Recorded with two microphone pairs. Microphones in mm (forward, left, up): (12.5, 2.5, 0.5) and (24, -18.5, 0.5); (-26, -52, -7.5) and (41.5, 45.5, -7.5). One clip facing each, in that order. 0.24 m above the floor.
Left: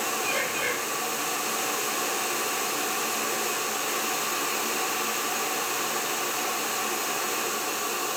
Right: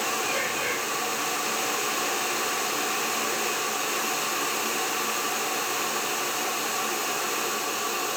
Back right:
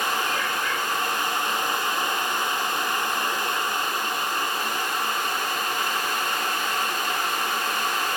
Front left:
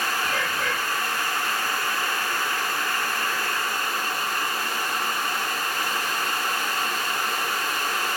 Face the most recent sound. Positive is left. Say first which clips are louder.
# even, even
turn(degrees=40)